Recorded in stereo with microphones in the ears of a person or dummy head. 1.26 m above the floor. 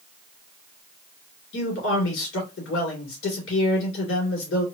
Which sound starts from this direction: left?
A man speaking, at 1.5 s.